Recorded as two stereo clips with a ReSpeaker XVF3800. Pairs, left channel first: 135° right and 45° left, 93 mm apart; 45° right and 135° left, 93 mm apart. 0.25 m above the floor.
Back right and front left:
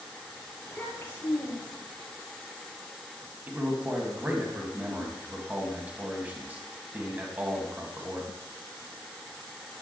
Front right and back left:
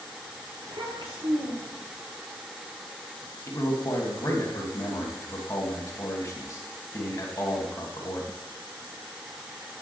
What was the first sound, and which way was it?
A child speaking, 150° left.